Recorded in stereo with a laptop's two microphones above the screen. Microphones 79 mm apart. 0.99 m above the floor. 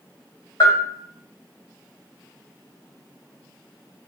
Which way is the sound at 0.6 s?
60° left (ahead or behind).